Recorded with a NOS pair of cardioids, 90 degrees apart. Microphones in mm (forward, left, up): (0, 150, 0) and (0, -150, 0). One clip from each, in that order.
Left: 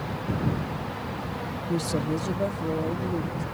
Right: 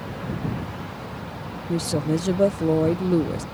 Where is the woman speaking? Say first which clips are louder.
Right 4 dB; 15° right; by 3.4 s 75° right.